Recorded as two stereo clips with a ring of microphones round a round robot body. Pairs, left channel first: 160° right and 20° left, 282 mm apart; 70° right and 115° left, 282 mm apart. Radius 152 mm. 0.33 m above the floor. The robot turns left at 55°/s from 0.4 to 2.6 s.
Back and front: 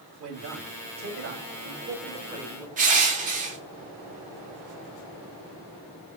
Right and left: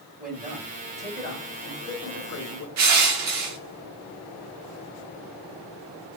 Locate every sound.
0.2 s a man speaking: 55° left, 2 m; by 2.7 s 65° right, 2 m
2.8 s crushing: 85° left, 0.9 m